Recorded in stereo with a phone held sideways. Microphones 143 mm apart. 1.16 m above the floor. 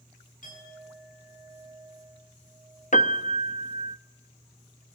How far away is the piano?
About 0.7 m.